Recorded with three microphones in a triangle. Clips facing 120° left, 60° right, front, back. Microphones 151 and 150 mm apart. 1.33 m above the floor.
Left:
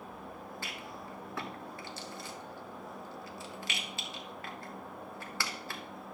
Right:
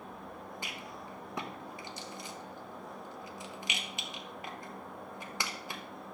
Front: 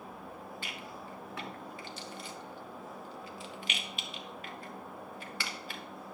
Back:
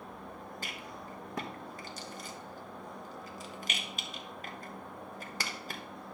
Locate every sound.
0.6 s a rattle: 135° right, 1.2 m